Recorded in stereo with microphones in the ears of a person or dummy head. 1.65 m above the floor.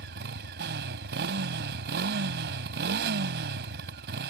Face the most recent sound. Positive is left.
turn(degrees=-55)  # may be behind; listen again after turning